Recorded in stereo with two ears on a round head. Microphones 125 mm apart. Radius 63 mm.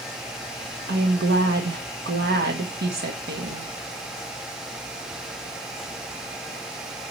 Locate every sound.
0.9 s a woman speaking: 85° right, 1.5 m